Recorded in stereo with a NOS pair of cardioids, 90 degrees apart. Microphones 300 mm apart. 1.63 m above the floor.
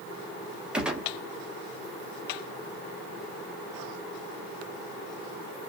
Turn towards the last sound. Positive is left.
turn(degrees=-5)